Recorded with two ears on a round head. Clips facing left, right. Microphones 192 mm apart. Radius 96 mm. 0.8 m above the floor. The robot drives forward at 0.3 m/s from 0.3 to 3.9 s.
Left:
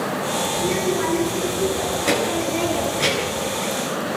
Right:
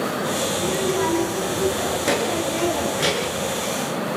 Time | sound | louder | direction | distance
0.5 | a child speaking | left 2 dB | 5° right (ahead or behind) | 8.5 m